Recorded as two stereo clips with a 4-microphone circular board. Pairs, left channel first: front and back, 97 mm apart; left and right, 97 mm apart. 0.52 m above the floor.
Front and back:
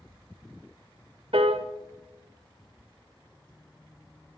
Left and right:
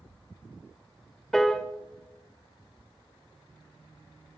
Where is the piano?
175° left, 0.5 m.